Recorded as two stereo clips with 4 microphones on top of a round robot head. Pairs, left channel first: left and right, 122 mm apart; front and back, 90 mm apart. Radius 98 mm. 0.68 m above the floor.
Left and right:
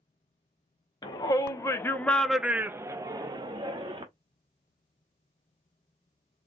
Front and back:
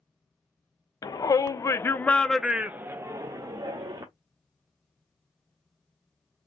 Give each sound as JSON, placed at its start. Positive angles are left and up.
{"t": 1.0, "sound": "a shout", "azimuth_deg": 35, "distance_m": 0.8}